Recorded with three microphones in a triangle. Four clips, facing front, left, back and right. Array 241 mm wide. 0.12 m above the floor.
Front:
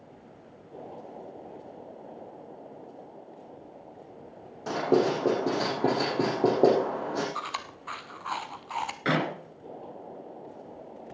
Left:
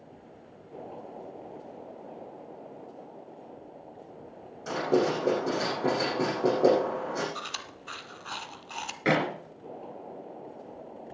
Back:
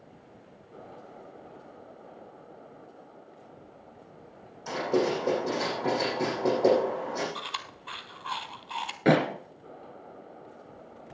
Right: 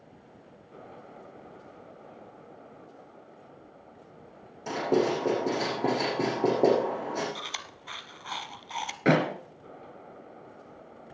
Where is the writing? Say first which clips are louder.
Even, front 3 dB; 20° right, 6.5 m.